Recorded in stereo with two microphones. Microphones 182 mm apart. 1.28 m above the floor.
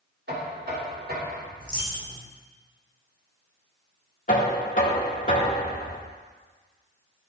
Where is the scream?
No scream in this recording.